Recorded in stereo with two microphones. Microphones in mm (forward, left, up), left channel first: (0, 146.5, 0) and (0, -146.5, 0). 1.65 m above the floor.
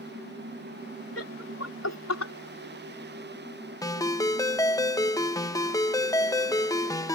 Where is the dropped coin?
I don't hear a dropped coin.